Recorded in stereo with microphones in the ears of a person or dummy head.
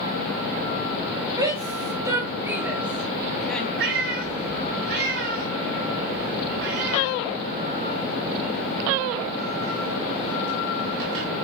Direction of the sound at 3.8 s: 70° right (ahead or behind).